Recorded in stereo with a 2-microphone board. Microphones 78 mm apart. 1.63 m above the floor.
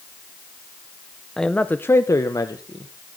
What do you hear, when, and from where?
1.4 s a man speaking: 5° left (ahead or behind), 0.7 m; by 3.2 s 65° left (ahead or behind), 1.2 m